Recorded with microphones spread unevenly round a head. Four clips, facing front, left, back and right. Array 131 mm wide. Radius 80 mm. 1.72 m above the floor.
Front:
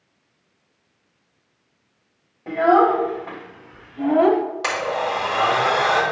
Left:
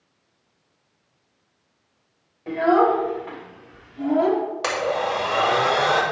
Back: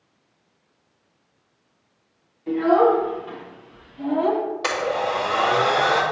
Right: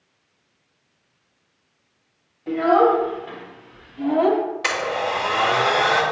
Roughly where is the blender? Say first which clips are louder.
Left 1 dB, even; behind left.